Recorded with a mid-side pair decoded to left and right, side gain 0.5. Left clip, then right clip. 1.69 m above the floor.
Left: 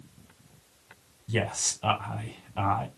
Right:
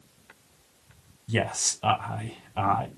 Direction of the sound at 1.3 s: 20° right.